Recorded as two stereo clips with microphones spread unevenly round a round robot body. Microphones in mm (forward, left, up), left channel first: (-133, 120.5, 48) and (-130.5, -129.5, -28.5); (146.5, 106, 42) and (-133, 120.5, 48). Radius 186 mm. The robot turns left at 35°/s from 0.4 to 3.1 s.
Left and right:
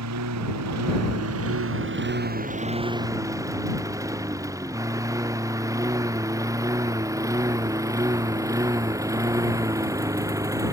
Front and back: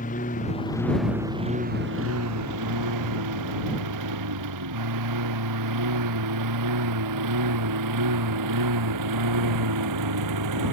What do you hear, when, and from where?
0.0 s a lawn mower: 70° right; by 10.7 s 165° right